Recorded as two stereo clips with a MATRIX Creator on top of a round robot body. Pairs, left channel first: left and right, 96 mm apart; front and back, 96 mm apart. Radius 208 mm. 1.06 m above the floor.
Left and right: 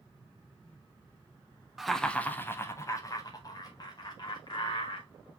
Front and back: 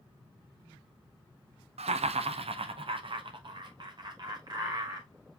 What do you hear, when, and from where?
1.8 s laughter: 175° right, 0.6 m; by 5.1 s 130° left, 2 m